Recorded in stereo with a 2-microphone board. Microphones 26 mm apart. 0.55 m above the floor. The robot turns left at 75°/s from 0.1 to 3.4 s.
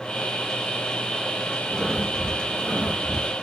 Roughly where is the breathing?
Ahead left.